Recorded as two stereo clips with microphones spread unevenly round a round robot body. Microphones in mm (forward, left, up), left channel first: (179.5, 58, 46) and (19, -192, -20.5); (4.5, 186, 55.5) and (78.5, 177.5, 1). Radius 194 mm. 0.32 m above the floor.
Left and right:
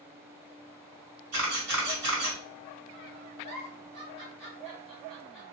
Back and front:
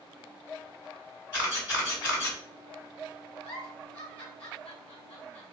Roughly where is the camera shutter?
Behind right.